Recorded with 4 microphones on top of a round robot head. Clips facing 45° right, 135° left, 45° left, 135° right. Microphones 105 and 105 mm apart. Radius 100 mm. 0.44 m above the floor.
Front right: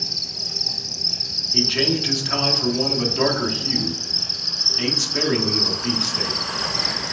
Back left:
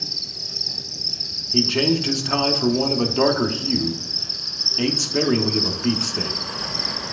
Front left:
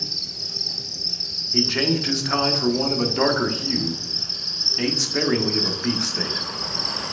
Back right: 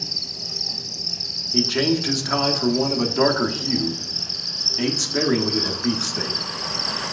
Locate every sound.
0.0 s an insect: 85° right, 0.7 m
1.5 s a man speaking: 145° left, 0.9 m